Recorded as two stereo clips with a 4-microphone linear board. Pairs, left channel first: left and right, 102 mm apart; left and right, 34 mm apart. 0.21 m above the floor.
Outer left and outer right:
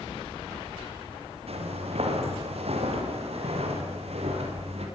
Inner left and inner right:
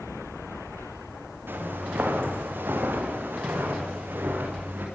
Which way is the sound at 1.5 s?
75° right (ahead or behind).